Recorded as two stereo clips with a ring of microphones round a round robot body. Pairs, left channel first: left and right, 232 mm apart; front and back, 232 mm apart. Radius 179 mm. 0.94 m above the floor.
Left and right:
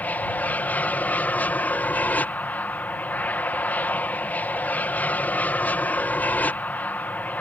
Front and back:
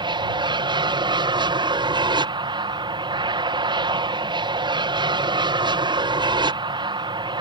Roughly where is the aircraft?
Behind.